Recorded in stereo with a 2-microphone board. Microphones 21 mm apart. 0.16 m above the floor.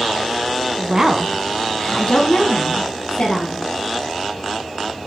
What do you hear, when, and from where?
0.8 s a woman speaking: 35° right (ahead or behind), 1.4 m; by 3.6 s 50° left (ahead or behind), 3.5 m